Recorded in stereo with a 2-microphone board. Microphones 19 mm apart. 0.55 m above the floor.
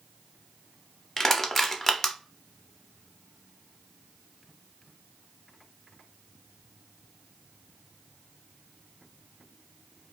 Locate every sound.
1.2 s crushing: 15° left (ahead or behind), 0.6 m